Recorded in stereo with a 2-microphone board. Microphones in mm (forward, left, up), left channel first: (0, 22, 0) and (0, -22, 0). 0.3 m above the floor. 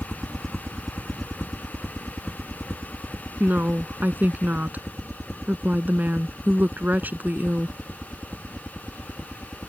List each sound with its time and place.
0.0 s a helicopter: centre (ahead or behind); by 9.7 s 5° left (ahead or behind)
3.4 s a woman speaking: 45° right (ahead or behind)